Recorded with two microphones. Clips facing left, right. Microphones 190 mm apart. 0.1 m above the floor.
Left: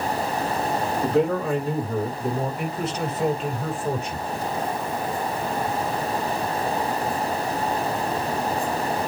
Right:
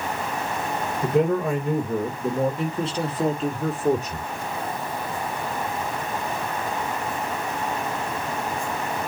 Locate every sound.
1.0 s a man speaking: 10° right (ahead or behind), 2.5 m; by 4.3 s 45° right (ahead or behind), 3 m